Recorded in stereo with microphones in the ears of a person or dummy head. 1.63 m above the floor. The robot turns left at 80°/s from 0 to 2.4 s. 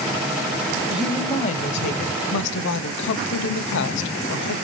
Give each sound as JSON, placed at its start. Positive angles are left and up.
{"t": 0.9, "sound": "a woman speaking", "azimuth_deg": -170, "distance_m": 0.7}